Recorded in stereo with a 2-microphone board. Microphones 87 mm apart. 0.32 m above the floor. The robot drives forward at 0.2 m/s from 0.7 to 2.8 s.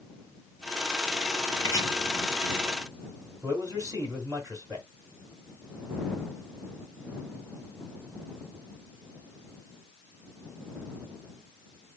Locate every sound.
1.6 s chopping: 40° left (ahead or behind), 1.7 m
3.4 s a man speaking: 45° right (ahead or behind), 1.9 m